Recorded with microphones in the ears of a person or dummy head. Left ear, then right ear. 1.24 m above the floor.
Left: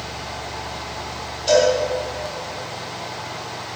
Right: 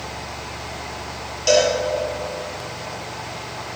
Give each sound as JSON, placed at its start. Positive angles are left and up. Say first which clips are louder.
{"t": 1.5, "sound": "a cowbell", "louder": "left 1 dB", "side_deg": -40, "distance_m": 7.0}